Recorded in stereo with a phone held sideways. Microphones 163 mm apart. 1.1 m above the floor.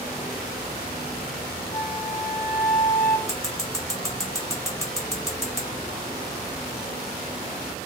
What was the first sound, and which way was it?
A flute, 55° left (ahead or behind).